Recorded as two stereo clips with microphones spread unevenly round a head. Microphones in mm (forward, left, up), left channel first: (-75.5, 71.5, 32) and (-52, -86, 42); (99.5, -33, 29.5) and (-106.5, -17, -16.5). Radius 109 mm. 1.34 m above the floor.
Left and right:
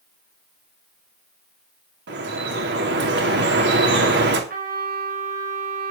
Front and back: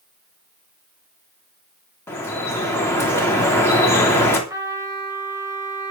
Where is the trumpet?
110° right, 4.5 m.